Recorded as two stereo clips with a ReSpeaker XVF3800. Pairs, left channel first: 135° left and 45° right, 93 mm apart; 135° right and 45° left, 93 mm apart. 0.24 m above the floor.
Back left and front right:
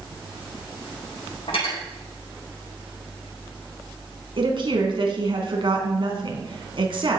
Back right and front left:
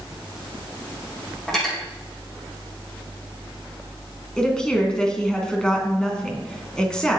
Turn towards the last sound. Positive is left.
turn(degrees=-55)